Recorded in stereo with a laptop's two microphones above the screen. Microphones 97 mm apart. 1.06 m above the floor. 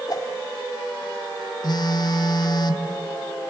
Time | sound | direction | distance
0.1 | a whoosh | 45° left (ahead or behind) | 1.5 m
1.6 | a phone buzzing | 50° left (ahead or behind) | 1.1 m